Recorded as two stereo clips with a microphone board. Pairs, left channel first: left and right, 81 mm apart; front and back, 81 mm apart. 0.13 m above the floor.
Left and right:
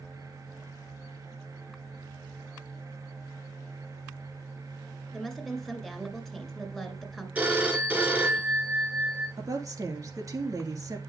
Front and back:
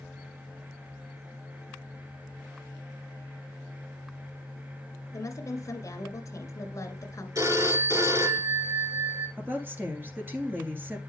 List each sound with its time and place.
5.1 s a woman speaking: 10° left, 1.9 m
7.3 s a phone ringing: 155° right, 1.5 m
9.4 s a woman speaking: 125° right, 2.5 m